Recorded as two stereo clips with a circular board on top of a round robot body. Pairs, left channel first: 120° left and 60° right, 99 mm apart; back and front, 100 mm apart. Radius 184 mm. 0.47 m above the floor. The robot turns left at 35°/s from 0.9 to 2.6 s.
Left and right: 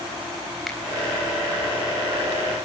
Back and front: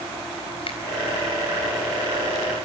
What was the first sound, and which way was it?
A finger snap, 150° right.